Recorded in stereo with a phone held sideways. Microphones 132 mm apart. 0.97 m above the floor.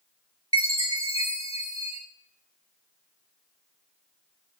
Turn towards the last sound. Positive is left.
turn(degrees=45)  # may be behind; listen again after turning